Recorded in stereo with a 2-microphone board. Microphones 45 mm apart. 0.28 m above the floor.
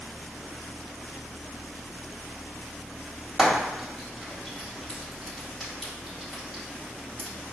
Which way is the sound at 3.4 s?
5° right (ahead or behind).